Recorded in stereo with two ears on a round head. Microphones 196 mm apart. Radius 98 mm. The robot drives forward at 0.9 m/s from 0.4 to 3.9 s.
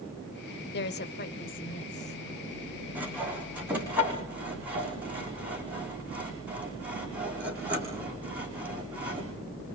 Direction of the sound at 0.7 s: 50° left (ahead or behind).